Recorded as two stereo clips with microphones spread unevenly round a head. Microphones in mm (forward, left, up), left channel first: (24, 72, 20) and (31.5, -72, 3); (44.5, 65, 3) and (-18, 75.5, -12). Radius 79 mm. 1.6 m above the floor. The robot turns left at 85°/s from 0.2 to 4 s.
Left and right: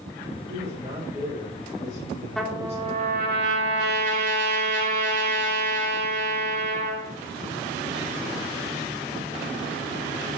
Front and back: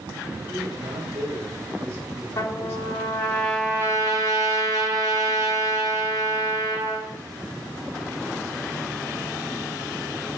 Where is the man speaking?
125° right, 7.5 m; by 3.0 s 25° left, 7.5 m.